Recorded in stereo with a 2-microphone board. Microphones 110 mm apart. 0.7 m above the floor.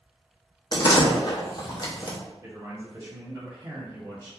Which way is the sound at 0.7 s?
40° left (ahead or behind).